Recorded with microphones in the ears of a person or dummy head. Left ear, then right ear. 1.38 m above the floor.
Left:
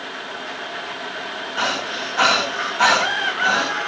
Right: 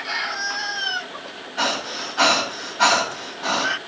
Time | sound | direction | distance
1.6 | breathing | 35° left (ahead or behind) | 9 m